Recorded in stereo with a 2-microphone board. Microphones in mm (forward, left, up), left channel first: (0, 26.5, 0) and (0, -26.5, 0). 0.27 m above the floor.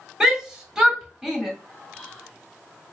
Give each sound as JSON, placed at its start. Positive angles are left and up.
{"t": 0.2, "sound": "a shout", "side_deg": -10, "distance_m": 1.2}
{"t": 1.9, "sound": "whispering", "side_deg": 5, "distance_m": 2.0}